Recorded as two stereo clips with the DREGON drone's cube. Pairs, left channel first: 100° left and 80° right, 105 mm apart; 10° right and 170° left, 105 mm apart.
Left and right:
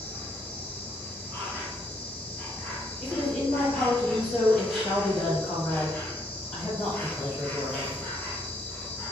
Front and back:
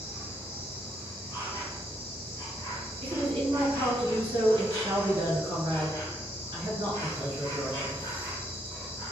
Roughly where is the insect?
Ahead left.